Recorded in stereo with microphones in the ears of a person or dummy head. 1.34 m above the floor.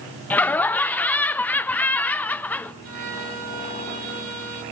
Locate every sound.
0.3 s laughter: 15° left (ahead or behind), 0.6 m
2.8 s a violin: 85° right, 7 m